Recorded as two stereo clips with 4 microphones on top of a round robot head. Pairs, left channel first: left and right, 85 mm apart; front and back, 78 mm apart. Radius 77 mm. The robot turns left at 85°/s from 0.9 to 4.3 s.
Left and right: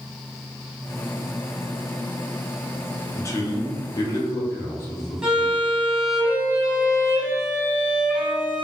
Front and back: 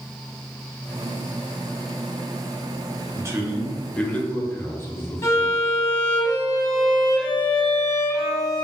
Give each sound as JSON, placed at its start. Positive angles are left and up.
{"t": 3.1, "sound": "a man speaking", "azimuth_deg": 145, "distance_m": 0.8}
{"t": 5.2, "sound": "a violin", "azimuth_deg": -20, "distance_m": 0.8}